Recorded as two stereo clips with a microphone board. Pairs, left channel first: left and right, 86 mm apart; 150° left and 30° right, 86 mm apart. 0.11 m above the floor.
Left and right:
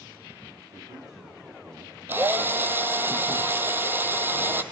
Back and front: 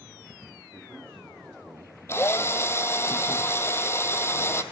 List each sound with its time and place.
0.7 s a man speaking: 130° right, 9.5 m; by 3.1 s 125° right, 8 m
2.1 s a drill: 155° right, 1.6 m